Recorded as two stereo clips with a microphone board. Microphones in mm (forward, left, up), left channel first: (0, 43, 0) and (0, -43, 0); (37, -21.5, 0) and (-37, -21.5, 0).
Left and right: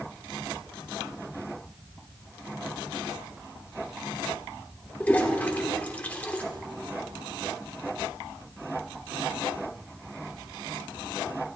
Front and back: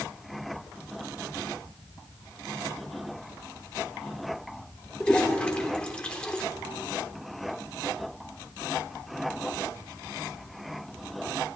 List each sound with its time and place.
5.0 s a toilet flushing: 50° left, 1.3 m